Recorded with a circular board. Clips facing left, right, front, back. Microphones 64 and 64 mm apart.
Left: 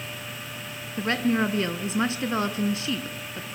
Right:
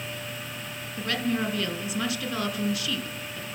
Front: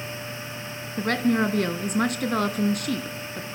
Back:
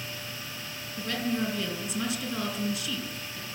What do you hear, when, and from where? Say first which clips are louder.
1.0 s a woman speaking: left 4 dB, front 8 dB; 30° left, 3 m